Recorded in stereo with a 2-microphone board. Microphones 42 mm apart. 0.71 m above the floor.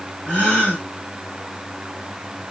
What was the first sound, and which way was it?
A gasp, 30° left (ahead or behind).